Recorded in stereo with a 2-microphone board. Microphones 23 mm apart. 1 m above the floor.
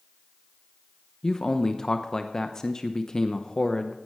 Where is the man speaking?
30° left (ahead or behind), 0.9 m.